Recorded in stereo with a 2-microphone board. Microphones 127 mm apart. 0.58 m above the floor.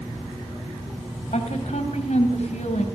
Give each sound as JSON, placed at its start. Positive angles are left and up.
{"t": 1.3, "sound": "a woman speaking", "side_deg": 70, "distance_m": 3.0}